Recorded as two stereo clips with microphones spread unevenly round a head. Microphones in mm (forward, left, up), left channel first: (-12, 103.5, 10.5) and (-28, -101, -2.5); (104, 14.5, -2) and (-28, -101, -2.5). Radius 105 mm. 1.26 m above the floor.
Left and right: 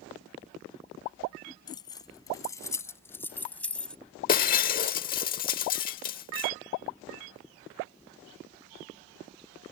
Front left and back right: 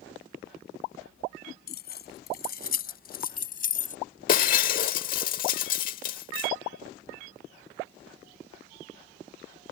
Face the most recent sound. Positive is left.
turn(degrees=60)